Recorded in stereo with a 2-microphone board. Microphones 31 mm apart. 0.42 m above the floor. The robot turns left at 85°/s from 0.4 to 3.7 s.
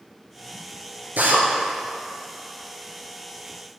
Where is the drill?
80° right, 3 m; by 1.4 s 75° right (ahead or behind), 3 m.